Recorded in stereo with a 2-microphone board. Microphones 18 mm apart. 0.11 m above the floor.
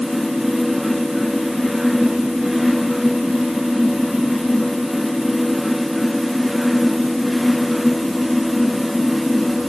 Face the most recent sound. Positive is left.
No sound to turn to.